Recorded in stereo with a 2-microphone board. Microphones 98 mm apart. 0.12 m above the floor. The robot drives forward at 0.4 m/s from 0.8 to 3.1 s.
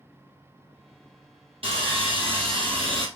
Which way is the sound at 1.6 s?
65° right (ahead or behind).